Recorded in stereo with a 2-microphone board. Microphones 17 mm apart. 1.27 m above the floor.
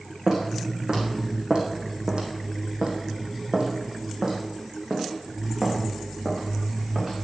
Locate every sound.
0.3 s footsteps: 35° right (ahead or behind), 5 m; by 7.2 s 30° right (ahead or behind), 7.5 m